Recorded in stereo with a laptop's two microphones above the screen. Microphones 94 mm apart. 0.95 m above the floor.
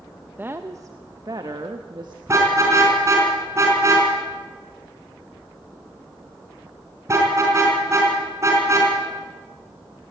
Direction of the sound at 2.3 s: 35° right (ahead or behind).